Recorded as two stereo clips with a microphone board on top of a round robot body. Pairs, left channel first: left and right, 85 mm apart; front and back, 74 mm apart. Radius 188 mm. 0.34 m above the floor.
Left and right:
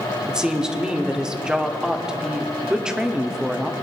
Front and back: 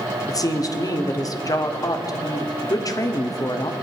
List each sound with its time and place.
0.3 s a woman speaking: 10° right, 1.2 m